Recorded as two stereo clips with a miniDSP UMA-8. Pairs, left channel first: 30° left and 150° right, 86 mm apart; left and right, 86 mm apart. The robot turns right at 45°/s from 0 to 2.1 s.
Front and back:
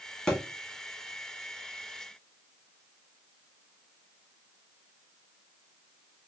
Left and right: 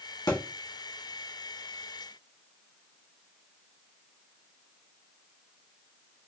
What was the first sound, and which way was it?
A thud, 110° left.